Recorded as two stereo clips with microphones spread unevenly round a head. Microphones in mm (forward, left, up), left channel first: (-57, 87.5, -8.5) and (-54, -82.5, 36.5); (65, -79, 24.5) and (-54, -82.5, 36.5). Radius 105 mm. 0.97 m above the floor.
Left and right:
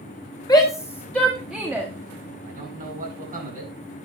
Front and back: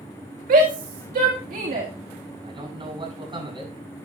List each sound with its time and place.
0.5 s a shout: 155° left, 1.7 m; by 1.9 s 170° right, 1.8 m
2.4 s a man speaking: 130° right, 8.5 m